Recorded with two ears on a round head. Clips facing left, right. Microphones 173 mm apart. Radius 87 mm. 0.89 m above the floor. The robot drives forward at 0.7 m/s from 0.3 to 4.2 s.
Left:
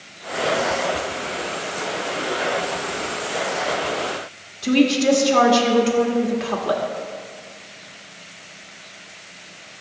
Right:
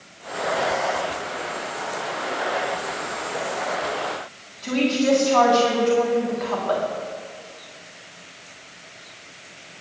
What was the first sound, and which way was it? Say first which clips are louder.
A woman speaking: left 4 dB; 40° left (ahead or behind).